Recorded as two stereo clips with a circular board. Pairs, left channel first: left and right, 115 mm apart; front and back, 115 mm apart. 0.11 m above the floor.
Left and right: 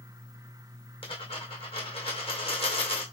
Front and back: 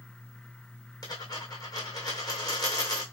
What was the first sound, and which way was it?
A dropped coin, 55° left.